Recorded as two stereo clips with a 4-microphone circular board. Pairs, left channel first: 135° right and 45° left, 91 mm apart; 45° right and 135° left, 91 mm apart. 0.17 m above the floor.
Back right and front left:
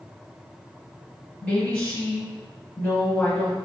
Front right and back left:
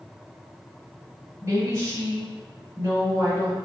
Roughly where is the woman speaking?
Behind left.